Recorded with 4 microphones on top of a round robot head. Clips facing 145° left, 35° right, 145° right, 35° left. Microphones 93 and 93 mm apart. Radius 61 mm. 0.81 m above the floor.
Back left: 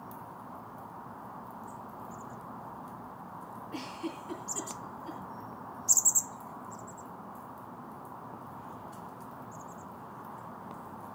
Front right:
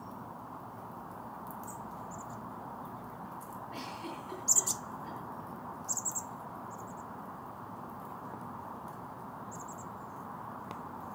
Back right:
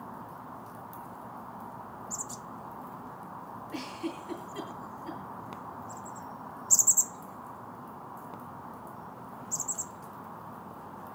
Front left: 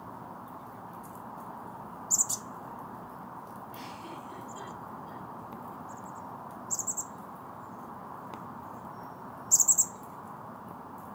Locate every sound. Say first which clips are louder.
3.7 s a giggle: back left 4 dB, back right 9 dB; 165° right, 8.5 m